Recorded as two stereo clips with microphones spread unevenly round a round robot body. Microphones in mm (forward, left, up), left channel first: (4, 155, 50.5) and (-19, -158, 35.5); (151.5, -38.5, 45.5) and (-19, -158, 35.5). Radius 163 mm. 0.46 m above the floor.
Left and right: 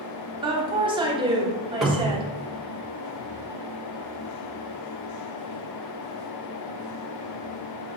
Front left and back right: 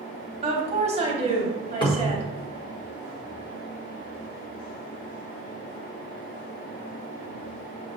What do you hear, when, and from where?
0.4 s a woman speaking: 150° right, 1.0 m
1.8 s a cupboard door: 10° right, 0.9 m